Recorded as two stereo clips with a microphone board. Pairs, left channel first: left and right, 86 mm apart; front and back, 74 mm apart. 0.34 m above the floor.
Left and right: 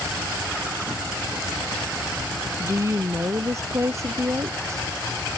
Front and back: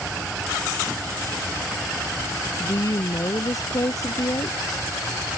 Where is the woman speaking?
35° right.